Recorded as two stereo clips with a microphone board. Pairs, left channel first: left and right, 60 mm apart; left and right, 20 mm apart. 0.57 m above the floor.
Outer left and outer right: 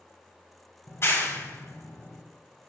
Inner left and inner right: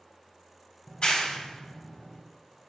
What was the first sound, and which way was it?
A clap, 45° left (ahead or behind).